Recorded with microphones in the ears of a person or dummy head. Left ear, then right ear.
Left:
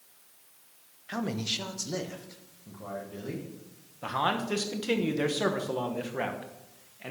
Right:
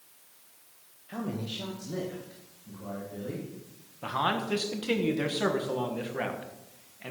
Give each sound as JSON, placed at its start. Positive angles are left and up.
{"t": 1.1, "sound": "a man speaking", "side_deg": 55, "distance_m": 1.1}
{"t": 4.0, "sound": "a man speaking", "side_deg": 10, "distance_m": 1.2}